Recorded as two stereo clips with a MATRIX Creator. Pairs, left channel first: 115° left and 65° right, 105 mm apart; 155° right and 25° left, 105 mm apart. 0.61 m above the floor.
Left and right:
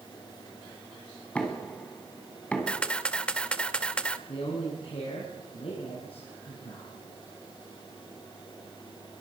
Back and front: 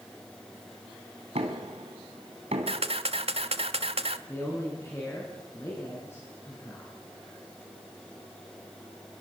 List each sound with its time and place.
1.4 s knocking: 35° left, 3 m
2.7 s a camera shutter: 35° left, 1.2 m
4.3 s a man speaking: 140° left, 6.5 m